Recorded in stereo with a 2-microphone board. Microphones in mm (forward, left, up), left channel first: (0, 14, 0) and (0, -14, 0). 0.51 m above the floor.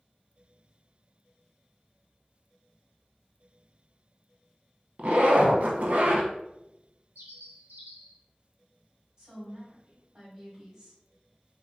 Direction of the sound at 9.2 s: 30° right (ahead or behind).